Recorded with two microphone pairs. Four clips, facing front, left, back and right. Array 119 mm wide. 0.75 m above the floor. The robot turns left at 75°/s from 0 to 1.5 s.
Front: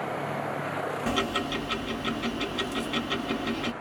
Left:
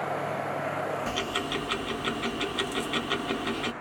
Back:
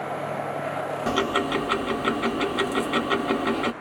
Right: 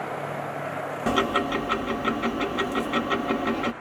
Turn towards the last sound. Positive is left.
turn(degrees=-155)